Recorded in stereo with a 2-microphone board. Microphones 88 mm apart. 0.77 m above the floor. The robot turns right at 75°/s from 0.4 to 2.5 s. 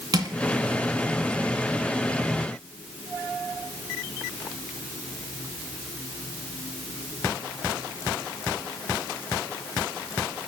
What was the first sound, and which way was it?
Crushing, 50° right (ahead or behind).